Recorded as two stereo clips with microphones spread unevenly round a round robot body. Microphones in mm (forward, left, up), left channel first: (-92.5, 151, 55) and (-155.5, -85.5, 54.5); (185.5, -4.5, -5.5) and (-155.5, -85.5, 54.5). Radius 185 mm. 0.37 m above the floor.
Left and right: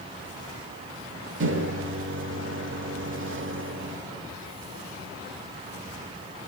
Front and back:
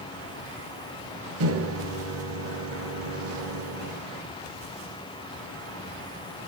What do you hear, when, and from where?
1.4 s a microwave: 115° right, 0.9 m